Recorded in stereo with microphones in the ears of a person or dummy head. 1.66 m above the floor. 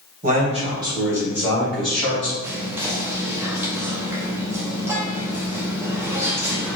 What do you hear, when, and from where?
0.2 s a man speaking: 45° right (ahead or behind), 1.0 m; by 2.3 s 5° left (ahead or behind), 1.8 m
2.4 s whispering: 15° right (ahead or behind), 0.7 m